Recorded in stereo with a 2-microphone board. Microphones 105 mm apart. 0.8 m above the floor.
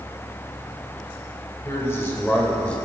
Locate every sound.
1.6 s a man speaking: 25° left (ahead or behind), 3 m; by 2.8 s 10° left (ahead or behind), 2.5 m